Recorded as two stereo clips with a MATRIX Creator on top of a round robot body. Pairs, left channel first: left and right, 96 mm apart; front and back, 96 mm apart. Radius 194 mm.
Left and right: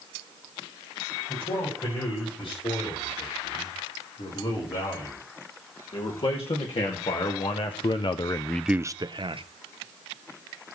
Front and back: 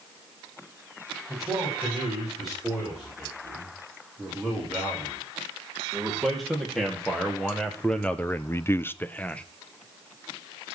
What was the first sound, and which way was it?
A man speaking, 90° left.